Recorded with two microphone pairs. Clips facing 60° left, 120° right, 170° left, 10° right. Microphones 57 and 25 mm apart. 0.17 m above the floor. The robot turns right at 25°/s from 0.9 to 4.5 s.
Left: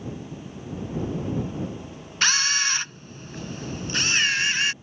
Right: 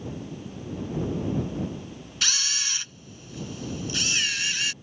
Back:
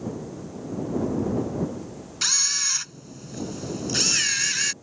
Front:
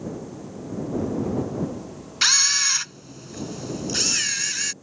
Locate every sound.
2.2 s a camera shutter: 35° left; by 4.7 s 95° left